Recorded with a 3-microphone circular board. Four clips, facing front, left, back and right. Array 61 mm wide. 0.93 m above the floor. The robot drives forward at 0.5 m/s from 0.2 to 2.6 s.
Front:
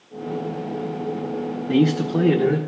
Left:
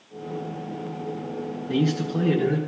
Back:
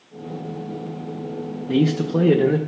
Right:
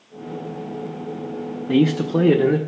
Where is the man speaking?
80° right, 0.7 m; by 2.6 s 125° right, 0.8 m.